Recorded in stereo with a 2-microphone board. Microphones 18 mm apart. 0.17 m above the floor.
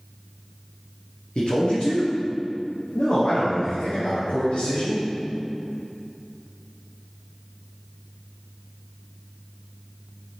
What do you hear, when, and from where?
1.4 s a man speaking: 60° left (ahead or behind), 2.5 m